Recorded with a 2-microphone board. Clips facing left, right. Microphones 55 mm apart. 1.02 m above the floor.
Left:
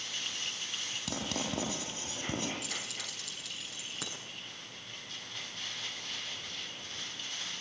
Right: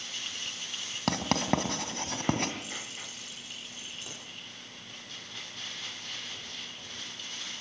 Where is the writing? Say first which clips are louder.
Right 9 dB; 55° right (ahead or behind), 3 m.